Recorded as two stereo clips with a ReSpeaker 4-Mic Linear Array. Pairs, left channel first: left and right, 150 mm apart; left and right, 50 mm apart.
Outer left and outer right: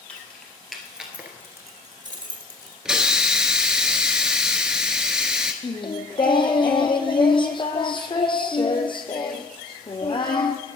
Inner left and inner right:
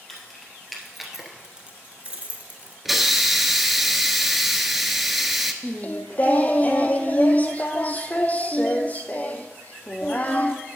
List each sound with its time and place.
0.1 s keys jangling: 5° left (ahead or behind), 2.5 m; by 2.8 s 30° right (ahead or behind), 1.9 m
2.9 s a hiss: 5° right (ahead or behind), 0.8 m
5.6 s singing: 35° left (ahead or behind), 0.9 m